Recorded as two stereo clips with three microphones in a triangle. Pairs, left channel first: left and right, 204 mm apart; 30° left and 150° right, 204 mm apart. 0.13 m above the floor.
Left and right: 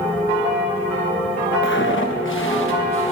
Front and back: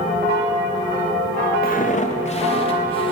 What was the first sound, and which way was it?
Footsteps, 70° left.